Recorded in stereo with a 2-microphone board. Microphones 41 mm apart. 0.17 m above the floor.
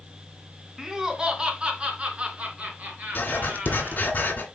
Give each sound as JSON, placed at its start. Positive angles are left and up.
{"t": 0.8, "sound": "laughter", "side_deg": -15, "distance_m": 1.4}
{"t": 3.1, "sound": "writing", "side_deg": 45, "distance_m": 2.0}